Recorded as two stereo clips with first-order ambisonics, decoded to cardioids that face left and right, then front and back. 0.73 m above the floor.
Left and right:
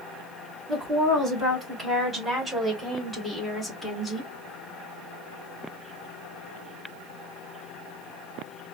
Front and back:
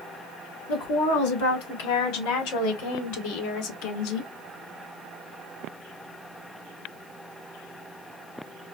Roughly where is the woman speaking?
Ahead.